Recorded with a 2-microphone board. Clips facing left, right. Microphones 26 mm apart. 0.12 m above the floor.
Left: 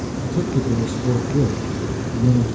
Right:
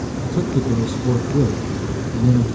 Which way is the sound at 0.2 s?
15° right (ahead or behind).